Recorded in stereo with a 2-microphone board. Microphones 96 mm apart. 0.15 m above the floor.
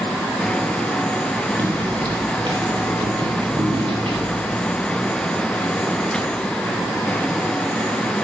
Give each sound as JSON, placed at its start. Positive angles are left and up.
{"t": 1.6, "sound": "footsteps", "side_deg": -45, "distance_m": 2.0}